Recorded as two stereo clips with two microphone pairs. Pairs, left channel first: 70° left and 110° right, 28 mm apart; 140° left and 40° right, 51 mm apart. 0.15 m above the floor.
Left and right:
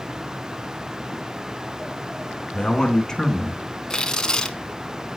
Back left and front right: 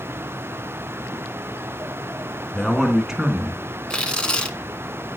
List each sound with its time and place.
2.5 s a man speaking: 75° left, 1.6 m; by 3.6 s 10° right, 1.6 m
3.9 s tearing paper: 100° left, 0.9 m